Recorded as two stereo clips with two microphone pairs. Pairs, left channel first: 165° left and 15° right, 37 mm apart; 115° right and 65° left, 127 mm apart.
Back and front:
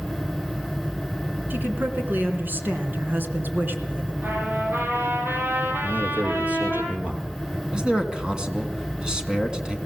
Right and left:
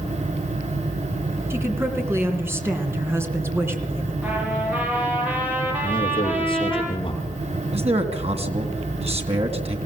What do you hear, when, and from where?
1.5 s a woman speaking: 5° right, 3 m
4.2 s a trumpet: 10° right, 7.5 m
5.8 s a man speaking: 65° right, 4.5 m
7.7 s a man speaking: 50° left, 2.5 m